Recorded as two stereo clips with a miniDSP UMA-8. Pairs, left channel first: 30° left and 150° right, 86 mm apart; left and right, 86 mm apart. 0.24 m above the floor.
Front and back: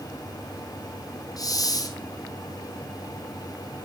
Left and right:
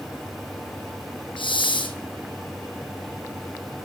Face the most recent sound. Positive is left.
turn(degrees=75)